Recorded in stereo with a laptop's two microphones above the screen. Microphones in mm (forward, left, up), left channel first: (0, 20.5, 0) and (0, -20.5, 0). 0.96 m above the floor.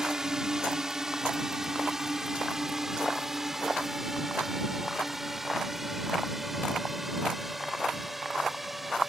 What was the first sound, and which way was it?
A drone, 15° right (ahead or behind).